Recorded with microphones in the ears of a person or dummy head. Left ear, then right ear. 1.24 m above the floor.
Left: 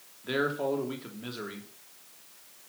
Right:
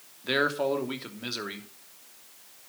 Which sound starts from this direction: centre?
A man speaking, at 0.2 s.